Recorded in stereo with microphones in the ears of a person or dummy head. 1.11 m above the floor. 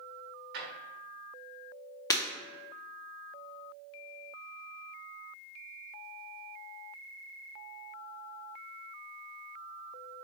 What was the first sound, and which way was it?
A drawer, 65° right (ahead or behind).